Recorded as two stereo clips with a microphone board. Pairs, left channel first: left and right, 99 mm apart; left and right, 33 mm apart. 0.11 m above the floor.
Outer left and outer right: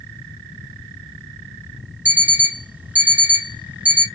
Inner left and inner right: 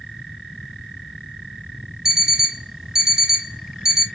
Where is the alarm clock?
15° right (ahead or behind), 0.7 m.